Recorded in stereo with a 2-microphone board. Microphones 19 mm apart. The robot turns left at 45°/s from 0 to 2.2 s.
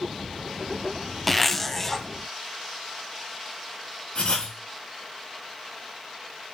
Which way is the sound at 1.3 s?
10° left (ahead or behind).